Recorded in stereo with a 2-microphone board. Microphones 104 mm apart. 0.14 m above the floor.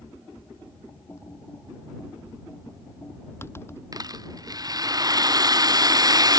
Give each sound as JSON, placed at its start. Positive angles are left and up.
{"t": 1.1, "sound": "typing on a keyboard", "side_deg": 25}
{"t": 3.9, "sound": "a rattle", "side_deg": -35}